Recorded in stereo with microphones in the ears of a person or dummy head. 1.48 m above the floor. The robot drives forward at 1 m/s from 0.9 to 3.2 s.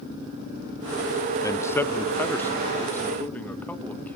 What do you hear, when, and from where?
1.4 s a man speaking: 10° left (ahead or behind), 0.7 m; by 4.2 s 5° left (ahead or behind), 2.5 m